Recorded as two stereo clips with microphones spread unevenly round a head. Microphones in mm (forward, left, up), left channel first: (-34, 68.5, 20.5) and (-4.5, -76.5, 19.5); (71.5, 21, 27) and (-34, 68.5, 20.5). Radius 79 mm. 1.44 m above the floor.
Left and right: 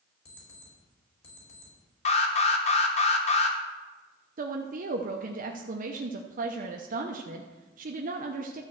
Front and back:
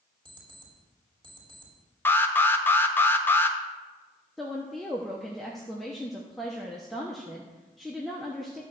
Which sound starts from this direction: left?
An alarm clock, at 0.2 s.